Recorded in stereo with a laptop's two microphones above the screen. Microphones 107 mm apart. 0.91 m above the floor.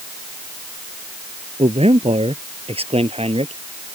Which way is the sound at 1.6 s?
70° right (ahead or behind).